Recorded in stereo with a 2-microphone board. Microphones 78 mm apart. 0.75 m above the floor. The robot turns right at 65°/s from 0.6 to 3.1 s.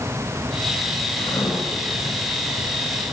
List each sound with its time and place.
1.2 s writing: 80° left, 7.5 m; by 1.5 s 60° left (ahead or behind), 7.5 m